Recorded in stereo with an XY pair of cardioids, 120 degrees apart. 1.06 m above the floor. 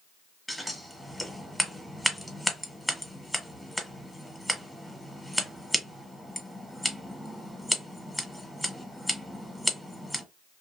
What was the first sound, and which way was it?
Scissors, 5° right.